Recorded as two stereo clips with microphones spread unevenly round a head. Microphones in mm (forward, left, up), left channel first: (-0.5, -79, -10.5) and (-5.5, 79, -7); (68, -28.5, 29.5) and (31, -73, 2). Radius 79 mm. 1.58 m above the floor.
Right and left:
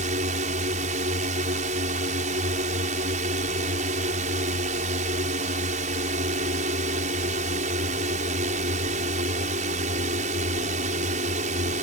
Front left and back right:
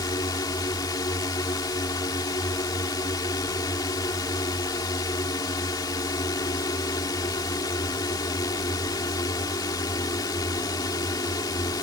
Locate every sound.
0.0 s a drone: 45° left